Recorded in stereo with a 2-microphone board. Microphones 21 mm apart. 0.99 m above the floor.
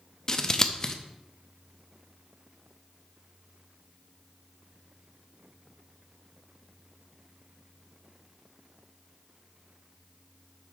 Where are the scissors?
20° left (ahead or behind), 0.7 m.